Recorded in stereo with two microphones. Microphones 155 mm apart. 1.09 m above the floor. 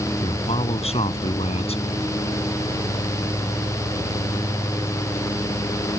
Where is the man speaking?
45° left (ahead or behind).